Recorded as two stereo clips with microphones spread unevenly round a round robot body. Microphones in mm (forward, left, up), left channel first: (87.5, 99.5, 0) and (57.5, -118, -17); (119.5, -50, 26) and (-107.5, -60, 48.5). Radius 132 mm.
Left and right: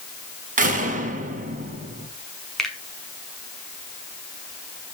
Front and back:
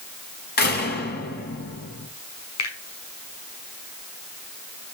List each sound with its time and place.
0.6 s a door slam: 45° right, 5.5 m
2.6 s a finger snap: 5° right, 6 m